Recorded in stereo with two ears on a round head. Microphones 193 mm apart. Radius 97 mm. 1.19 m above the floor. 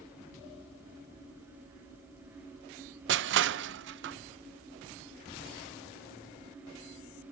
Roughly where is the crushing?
Right.